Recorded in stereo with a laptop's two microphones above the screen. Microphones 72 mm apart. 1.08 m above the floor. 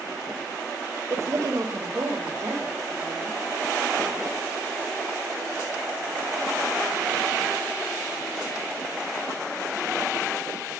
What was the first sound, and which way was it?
A woman speaking, 40° right (ahead or behind).